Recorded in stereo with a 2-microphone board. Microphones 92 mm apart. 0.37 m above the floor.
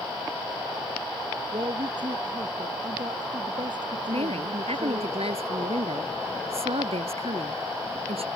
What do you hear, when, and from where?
1.5 s a woman speaking: 50° right (ahead or behind)
4.1 s a woman speaking: 80° right